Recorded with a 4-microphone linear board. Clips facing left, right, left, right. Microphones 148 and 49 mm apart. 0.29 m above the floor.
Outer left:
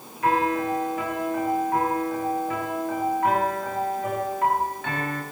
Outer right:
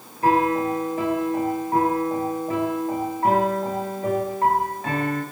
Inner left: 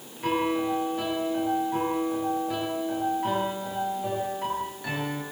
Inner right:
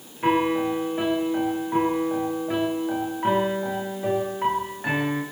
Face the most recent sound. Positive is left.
turn(degrees=-35)  # may be behind; listen again after turning